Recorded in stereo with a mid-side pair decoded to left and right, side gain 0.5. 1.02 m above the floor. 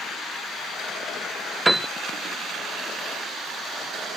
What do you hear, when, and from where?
1.6 s a piano: 20° right, 0.6 m